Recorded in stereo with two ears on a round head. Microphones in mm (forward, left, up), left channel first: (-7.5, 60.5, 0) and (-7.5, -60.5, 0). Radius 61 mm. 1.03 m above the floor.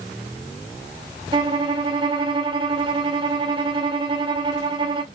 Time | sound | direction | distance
1.3 | a violin | 35° right (ahead or behind) | 0.7 m